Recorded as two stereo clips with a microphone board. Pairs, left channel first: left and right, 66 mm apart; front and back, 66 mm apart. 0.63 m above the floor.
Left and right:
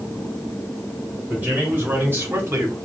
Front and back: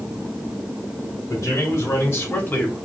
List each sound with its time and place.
1.3 s a man speaking: 25° right, 2 m; by 2.8 s 60° right, 1.1 m